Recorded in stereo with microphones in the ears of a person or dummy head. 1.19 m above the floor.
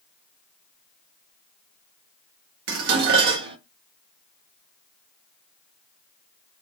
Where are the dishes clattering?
60° right (ahead or behind), 1.1 m.